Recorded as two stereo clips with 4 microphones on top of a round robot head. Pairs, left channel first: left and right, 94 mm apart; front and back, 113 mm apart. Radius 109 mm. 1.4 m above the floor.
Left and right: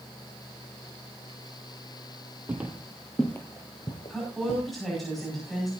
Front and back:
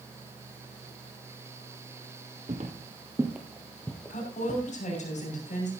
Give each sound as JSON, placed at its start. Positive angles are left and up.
{"t": 2.5, "sound": "footsteps", "azimuth_deg": -150, "distance_m": 1.7}
{"t": 4.1, "sound": "a woman speaking", "azimuth_deg": 0, "distance_m": 6.0}